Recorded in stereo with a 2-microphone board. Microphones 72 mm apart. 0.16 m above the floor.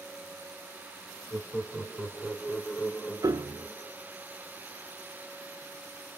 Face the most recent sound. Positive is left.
turn(degrees=-65)  # may be behind; listen again after turning